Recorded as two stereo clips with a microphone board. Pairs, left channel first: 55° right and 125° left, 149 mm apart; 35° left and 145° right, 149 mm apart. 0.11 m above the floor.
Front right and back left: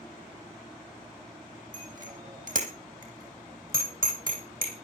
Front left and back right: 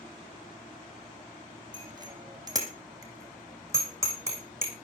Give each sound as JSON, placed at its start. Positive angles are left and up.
{"t": 1.7, "sound": "a bicycle bell", "azimuth_deg": 155, "distance_m": 4.5}